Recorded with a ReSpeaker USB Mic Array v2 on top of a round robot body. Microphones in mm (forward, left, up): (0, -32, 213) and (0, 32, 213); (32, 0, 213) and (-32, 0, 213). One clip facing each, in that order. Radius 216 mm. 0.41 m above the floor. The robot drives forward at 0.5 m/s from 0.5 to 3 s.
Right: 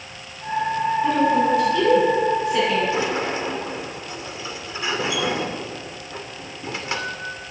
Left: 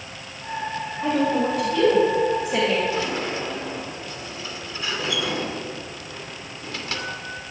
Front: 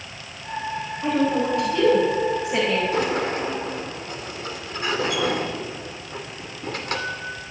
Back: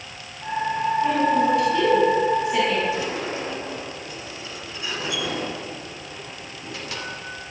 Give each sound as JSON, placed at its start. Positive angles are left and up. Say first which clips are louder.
{"t": 1.0, "sound": "a woman speaking", "louder": "right 1 dB, even", "azimuth_deg": 55, "distance_m": 3.5}
{"t": 2.9, "sound": "a sliding door", "louder": "right 3 dB, front 4 dB", "azimuth_deg": -25, "distance_m": 2.5}